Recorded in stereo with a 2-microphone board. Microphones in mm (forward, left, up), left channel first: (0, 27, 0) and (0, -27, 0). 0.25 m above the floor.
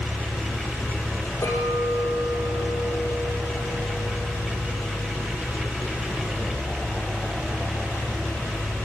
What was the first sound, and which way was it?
A clink, 55° left (ahead or behind).